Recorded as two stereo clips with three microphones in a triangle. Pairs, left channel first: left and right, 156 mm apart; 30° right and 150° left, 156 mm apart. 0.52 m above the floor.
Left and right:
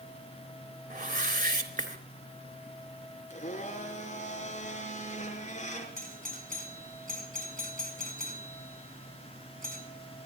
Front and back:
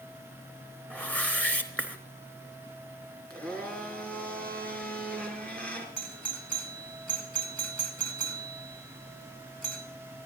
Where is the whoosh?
110° right, 3.5 m.